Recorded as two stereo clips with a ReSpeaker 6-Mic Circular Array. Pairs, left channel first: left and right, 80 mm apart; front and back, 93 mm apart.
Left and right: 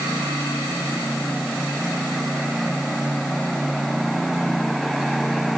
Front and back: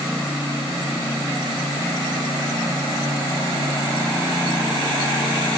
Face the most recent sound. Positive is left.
No sound to turn to.